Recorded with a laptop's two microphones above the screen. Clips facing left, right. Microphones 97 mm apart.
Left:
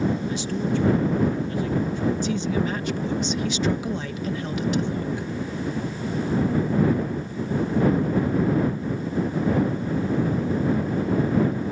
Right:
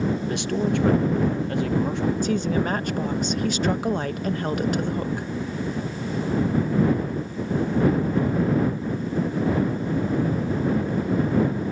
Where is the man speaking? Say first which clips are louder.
Right 2 dB; 60° right (ahead or behind); by 2.1 s 70° right (ahead or behind).